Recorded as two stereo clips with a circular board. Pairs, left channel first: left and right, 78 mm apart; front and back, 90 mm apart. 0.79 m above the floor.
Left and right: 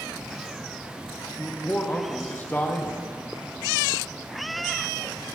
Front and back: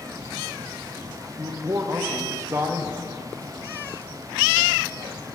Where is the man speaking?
140° left, 0.9 m.